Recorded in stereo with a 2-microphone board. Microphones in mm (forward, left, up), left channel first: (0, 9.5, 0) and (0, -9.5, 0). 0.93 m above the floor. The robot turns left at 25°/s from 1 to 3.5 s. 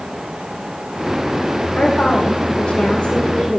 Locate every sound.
1.8 s a woman speaking: 85° left, 2.5 m; by 3.6 s 45° left, 2.5 m